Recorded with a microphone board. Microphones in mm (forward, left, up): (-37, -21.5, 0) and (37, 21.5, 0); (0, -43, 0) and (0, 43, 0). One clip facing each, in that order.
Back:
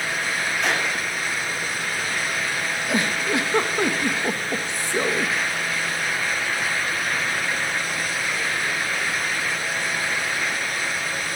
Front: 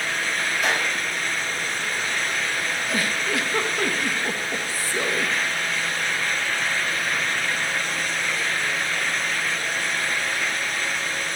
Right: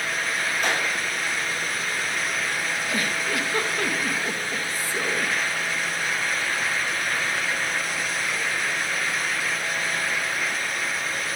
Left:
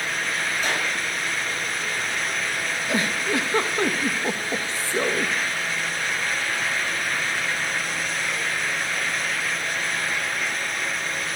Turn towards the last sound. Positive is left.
turn(degrees=145)